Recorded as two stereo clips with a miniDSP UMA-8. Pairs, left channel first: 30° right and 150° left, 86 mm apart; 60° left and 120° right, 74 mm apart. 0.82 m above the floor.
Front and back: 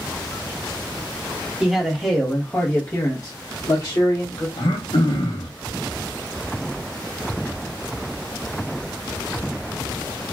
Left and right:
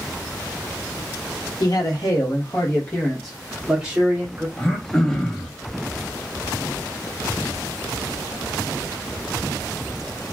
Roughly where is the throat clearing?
Ahead.